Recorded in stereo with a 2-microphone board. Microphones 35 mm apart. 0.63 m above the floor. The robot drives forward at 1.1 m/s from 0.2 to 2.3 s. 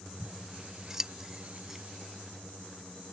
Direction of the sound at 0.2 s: 15° right (ahead or behind).